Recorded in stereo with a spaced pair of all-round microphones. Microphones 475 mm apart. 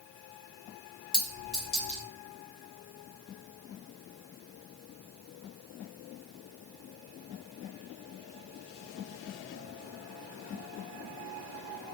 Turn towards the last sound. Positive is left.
turn(degrees=55)  # may be behind; listen again after turning